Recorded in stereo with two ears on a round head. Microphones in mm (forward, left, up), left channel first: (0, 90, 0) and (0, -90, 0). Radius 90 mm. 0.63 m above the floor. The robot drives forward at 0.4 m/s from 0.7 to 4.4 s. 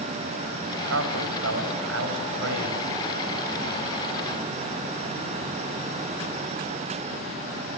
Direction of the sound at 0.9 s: 75° right (ahead or behind).